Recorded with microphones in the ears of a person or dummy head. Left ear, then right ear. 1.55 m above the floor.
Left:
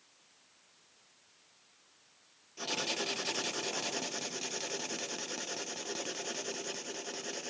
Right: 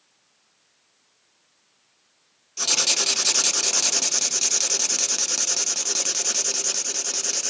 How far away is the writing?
About 0.7 m.